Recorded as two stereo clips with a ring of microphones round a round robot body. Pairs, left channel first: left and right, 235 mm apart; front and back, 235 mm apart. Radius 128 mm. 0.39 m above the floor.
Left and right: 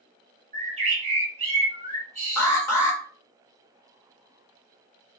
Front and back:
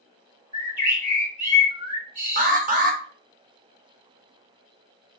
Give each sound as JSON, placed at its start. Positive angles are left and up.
{"t": 0.5, "sound": "a bird", "azimuth_deg": -145, "distance_m": 1.8}
{"t": 2.4, "sound": "an alarm", "azimuth_deg": 160, "distance_m": 0.7}